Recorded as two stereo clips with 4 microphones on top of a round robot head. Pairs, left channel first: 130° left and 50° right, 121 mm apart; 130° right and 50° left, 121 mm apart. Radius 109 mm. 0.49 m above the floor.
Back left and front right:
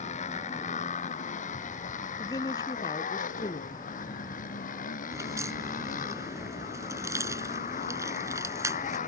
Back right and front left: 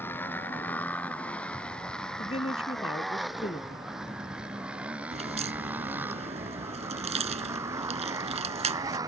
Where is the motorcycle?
155° left; by 9.1 s 115° left.